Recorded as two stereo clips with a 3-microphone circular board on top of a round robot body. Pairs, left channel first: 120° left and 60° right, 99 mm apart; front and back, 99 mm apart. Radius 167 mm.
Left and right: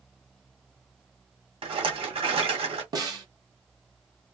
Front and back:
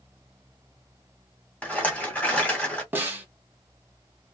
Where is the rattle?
75° right, 1.6 m.